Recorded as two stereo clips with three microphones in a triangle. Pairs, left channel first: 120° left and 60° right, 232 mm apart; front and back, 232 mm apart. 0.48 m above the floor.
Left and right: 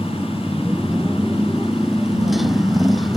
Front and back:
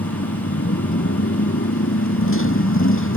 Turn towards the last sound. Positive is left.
turn(degrees=30)